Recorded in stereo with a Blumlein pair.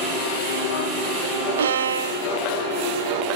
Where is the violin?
65° right, 0.6 m.